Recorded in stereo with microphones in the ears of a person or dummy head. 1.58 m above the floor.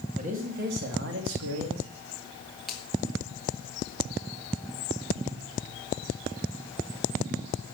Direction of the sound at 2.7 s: Centre (ahead or behind).